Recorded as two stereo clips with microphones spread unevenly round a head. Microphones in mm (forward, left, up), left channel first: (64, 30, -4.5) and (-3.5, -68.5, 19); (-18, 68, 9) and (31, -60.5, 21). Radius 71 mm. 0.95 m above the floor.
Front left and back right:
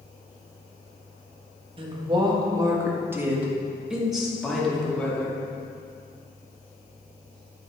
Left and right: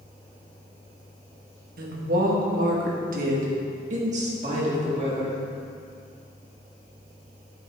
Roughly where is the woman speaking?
Right.